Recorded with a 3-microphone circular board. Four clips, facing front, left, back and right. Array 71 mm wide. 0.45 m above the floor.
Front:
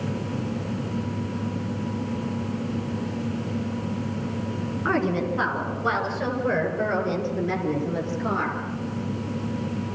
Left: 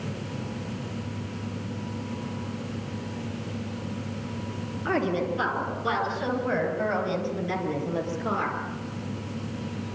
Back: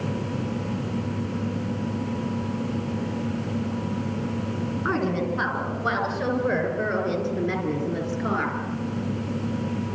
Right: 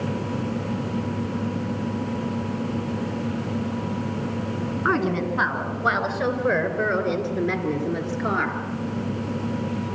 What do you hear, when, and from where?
4.8 s a woman speaking: 85° right, 6.5 m; by 8.6 s 100° right, 7.5 m